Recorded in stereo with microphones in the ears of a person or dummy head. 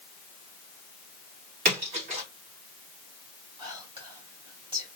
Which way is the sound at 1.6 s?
50° right (ahead or behind).